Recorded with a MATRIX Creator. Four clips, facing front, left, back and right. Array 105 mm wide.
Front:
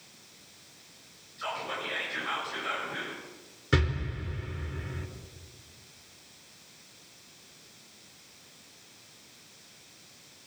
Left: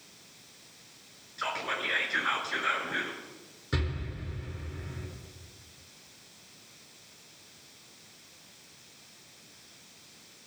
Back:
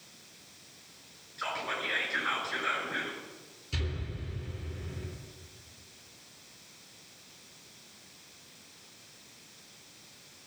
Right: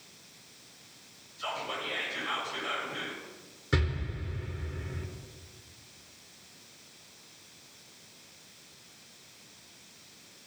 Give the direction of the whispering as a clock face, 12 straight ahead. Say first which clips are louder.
Left 2 dB, even; 8 o'clock.